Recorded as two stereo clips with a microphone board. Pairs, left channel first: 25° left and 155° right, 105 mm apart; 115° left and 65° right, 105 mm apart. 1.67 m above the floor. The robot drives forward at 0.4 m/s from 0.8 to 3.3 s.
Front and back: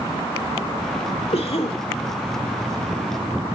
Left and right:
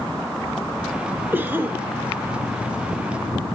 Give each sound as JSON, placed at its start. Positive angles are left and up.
{"t": 1.3, "sound": "a cough", "azimuth_deg": 0, "distance_m": 2.0}